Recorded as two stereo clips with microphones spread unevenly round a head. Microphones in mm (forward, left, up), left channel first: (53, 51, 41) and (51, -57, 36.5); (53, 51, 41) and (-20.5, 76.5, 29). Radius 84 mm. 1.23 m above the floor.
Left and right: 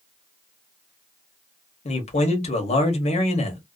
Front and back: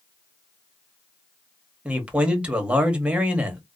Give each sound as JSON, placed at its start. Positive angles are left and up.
{"t": 1.9, "sound": "a man speaking", "azimuth_deg": 90, "distance_m": 1.0}